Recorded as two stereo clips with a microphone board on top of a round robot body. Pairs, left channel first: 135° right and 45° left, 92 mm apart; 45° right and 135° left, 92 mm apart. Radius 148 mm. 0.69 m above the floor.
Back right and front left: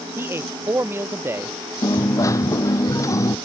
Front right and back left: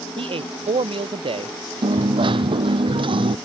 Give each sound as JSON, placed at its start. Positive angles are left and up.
{"t": 0.2, "sound": "a man speaking", "azimuth_deg": 110}
{"t": 1.8, "sound": "a dropped coin", "azimuth_deg": 165}